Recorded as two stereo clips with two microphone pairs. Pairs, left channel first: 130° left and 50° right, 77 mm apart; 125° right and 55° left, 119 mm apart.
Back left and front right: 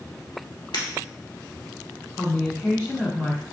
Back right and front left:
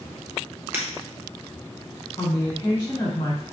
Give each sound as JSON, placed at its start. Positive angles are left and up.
{"t": 0.7, "sound": "breaking glass", "azimuth_deg": 120, "distance_m": 1.4}
{"t": 2.2, "sound": "a woman speaking", "azimuth_deg": 180, "distance_m": 1.4}